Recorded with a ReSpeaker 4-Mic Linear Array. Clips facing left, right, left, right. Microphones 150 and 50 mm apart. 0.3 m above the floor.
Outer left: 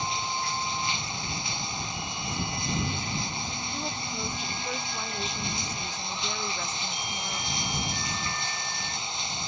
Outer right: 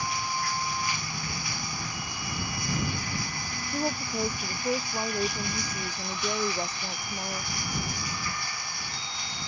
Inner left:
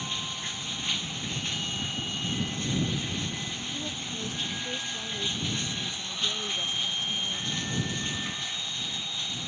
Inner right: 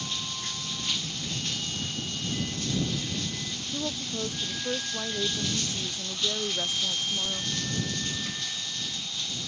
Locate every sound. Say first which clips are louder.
0.0 s running water: even, inner left 1 dB; 20° left (ahead or behind)
3.7 s a woman speaking: outer right 9 dB, inner right 3 dB; 35° right (ahead or behind)